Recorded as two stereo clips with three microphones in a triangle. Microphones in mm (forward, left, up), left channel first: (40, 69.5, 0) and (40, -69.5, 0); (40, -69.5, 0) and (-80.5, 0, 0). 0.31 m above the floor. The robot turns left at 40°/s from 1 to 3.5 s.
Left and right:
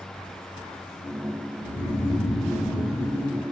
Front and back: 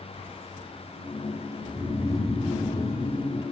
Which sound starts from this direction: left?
Snoring, at 1.6 s.